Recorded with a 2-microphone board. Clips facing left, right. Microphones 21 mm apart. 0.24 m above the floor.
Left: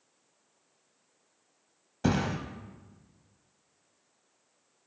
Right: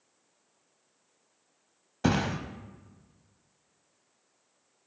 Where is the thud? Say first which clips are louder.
Right 1 dB; 15° right (ahead or behind), 0.6 m.